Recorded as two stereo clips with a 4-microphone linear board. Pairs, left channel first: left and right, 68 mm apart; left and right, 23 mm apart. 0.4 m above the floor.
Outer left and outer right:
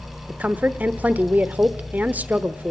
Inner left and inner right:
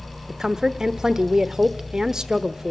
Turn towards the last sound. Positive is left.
turn(degrees=-25)  # may be behind; listen again after turning